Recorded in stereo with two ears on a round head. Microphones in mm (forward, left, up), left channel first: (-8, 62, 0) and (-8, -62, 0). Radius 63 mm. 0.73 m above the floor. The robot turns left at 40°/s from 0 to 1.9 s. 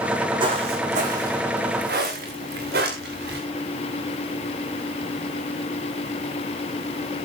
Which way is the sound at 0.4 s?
35° right (ahead or behind).